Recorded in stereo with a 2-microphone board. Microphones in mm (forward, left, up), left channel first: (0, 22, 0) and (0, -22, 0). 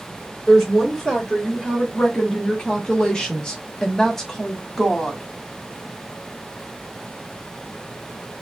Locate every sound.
0.5 s a woman speaking: 10° left (ahead or behind), 2 m; by 5.2 s 5° left (ahead or behind), 1.4 m